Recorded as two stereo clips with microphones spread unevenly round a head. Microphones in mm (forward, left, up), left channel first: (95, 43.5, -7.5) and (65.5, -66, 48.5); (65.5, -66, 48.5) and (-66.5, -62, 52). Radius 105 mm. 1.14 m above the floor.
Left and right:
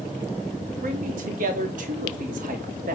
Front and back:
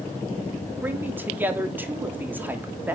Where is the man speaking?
105° right, 3.5 m.